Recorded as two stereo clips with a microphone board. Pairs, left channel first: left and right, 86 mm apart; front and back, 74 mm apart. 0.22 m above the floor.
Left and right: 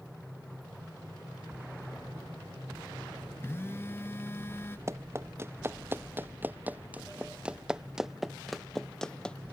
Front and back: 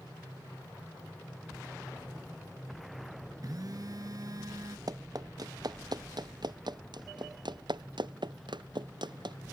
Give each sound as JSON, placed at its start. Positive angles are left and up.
{"t": 3.4, "sound": "a phone buzzing", "azimuth_deg": 150}
{"t": 4.9, "sound": "running footsteps", "azimuth_deg": -145}